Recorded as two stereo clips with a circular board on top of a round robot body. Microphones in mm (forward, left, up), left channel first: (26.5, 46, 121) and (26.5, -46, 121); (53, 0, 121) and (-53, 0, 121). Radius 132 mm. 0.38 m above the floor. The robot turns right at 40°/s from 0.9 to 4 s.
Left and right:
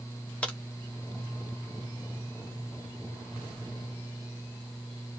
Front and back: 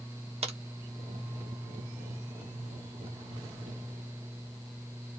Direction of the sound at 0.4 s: 165° left.